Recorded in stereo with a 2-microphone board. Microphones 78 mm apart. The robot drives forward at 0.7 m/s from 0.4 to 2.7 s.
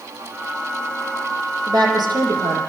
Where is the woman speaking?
70° right (ahead or behind), 8 m; by 2.6 s 65° right (ahead or behind), 8 m.